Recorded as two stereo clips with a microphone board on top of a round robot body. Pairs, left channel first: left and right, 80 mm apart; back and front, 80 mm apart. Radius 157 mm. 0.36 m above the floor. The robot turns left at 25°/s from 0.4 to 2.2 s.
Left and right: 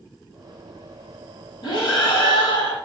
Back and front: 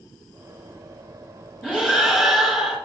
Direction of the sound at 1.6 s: 105° left.